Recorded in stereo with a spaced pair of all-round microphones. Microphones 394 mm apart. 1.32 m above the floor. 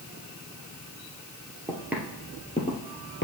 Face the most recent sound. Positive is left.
turn(degrees=30)  # may be behind; listen again after turning